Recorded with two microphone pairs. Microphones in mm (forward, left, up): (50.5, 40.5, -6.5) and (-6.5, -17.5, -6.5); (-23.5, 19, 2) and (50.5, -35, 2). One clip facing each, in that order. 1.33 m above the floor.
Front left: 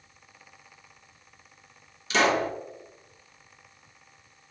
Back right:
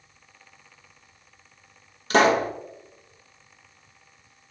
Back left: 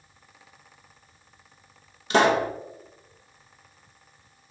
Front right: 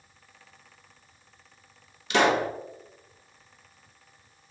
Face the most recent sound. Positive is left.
turn(degrees=-165)